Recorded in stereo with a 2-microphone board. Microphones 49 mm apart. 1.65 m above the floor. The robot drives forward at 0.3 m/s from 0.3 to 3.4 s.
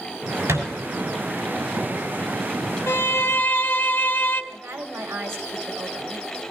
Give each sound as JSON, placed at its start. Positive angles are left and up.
{"t": 0.5, "sound": "a thud", "side_deg": -70, "distance_m": 5.5}
{"t": 2.9, "sound": "a violin", "side_deg": 55, "distance_m": 0.7}
{"t": 4.5, "sound": "a woman speaking", "side_deg": -80, "distance_m": 1.8}